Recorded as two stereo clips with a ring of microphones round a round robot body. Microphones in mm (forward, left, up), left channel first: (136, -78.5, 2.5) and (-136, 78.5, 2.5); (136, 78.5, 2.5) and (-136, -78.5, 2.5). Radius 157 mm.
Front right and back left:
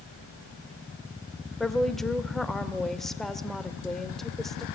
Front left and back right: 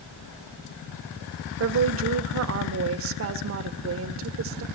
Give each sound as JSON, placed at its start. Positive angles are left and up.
{"t": 1.6, "sound": "a woman speaking", "azimuth_deg": -120, "distance_m": 1.4}